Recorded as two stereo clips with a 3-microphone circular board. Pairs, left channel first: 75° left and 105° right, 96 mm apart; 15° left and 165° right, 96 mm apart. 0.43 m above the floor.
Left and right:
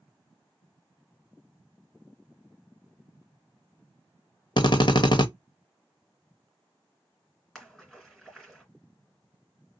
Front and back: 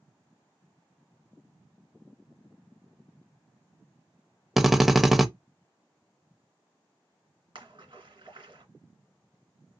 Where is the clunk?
No clunk in this recording.